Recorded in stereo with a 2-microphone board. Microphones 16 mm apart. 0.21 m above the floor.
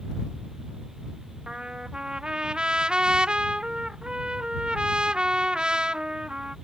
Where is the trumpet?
65° right (ahead or behind).